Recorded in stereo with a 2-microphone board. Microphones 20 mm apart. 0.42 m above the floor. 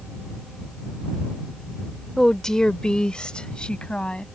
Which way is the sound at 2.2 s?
15° left (ahead or behind).